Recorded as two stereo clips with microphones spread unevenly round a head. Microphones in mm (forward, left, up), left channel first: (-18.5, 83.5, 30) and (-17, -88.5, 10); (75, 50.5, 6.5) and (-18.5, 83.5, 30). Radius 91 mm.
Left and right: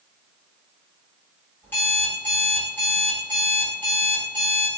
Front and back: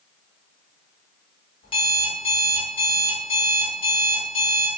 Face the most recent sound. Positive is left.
turn(degrees=15)